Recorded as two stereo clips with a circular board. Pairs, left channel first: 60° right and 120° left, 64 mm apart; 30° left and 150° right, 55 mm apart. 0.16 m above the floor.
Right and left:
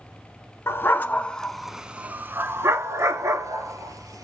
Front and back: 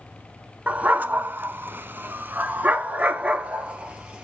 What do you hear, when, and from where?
0.7 s a dog barking: 95° right, 0.7 m; by 4.2 s 140° left, 1.5 m